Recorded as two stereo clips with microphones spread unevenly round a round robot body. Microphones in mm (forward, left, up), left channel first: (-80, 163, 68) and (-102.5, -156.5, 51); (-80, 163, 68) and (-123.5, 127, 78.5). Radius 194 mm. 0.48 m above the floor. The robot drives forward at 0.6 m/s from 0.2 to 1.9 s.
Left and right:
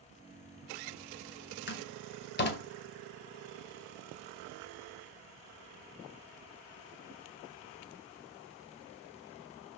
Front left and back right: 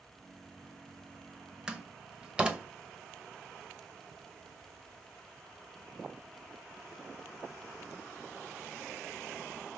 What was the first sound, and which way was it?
A door slam, 140° left.